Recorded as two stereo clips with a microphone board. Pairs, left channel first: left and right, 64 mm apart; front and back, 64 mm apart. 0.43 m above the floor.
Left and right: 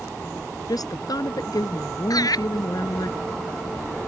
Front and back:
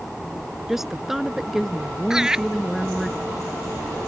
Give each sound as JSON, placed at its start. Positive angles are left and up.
{"t": 0.7, "sound": "a woman speaking", "azimuth_deg": 95}
{"t": 2.1, "sound": "laughter", "azimuth_deg": 100}